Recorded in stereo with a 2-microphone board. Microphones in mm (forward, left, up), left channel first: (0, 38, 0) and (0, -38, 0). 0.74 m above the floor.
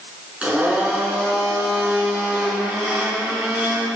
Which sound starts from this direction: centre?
A blender, at 0.4 s.